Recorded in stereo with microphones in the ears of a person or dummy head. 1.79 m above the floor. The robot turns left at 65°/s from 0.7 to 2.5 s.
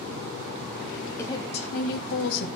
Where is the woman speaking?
165° left, 0.8 m; by 2.5 s 80° left, 0.8 m.